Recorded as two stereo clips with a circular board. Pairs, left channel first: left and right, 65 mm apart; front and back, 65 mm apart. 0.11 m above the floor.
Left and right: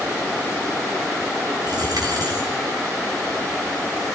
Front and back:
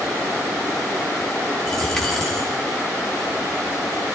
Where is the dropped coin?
85° right, 2.5 m.